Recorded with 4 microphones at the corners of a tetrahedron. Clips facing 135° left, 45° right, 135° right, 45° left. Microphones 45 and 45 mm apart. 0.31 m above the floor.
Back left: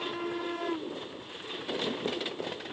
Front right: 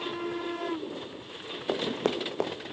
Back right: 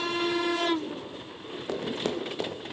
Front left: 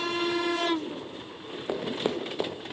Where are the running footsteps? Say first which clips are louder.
Front right 4 dB, front left 1 dB; 30° right, 1.3 m.